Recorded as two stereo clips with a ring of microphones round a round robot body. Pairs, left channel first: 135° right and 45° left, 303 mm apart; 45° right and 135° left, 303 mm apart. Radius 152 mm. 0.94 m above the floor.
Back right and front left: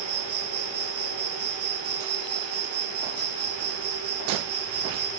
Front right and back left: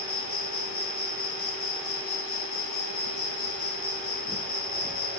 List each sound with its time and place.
0.0 s an insect: straight ahead, 2.5 m